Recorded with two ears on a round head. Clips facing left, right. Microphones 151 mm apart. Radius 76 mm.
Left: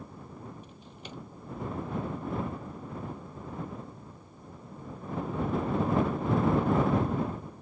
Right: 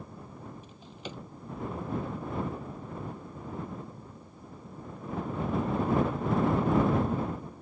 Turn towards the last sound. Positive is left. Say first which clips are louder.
# right 3 dB
turn(degrees=-70)  # may be behind; listen again after turning